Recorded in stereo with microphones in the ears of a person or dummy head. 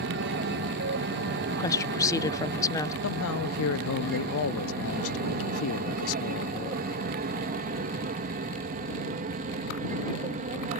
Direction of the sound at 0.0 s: 55° right (ahead or behind).